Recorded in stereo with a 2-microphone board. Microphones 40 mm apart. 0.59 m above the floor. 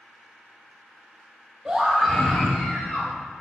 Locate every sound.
1.6 s a scream: 15° right (ahead or behind), 1.2 m; by 3.1 s 35° left (ahead or behind), 1.9 m